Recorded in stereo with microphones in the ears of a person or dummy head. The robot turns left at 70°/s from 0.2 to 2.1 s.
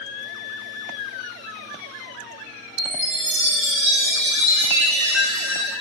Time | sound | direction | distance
2.8 | a chime | 65° right (ahead or behind) | 2.5 m